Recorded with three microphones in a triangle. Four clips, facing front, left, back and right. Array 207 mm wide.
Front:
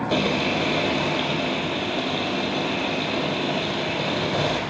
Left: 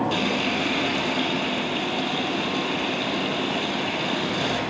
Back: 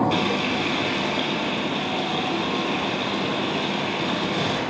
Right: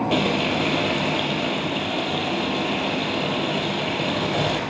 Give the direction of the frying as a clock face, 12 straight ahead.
2 o'clock.